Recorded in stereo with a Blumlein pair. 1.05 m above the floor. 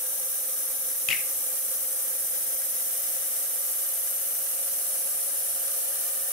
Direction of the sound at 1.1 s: 35° left.